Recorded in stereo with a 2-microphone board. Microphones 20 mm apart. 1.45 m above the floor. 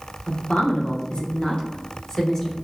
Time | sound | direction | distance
0.3 | a woman speaking | 80° left | 1.2 m